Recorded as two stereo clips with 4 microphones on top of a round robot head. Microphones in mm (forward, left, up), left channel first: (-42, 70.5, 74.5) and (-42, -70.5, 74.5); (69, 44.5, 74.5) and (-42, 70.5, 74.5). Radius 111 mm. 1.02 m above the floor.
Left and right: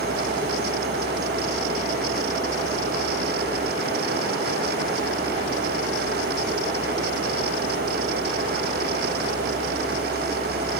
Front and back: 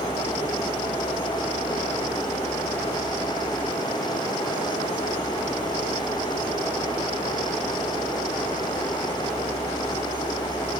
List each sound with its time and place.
Only background noise.